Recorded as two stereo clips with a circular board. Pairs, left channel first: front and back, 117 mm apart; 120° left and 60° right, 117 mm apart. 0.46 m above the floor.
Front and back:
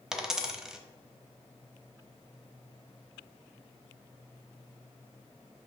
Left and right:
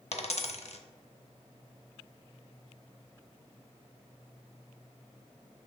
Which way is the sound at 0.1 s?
95° left.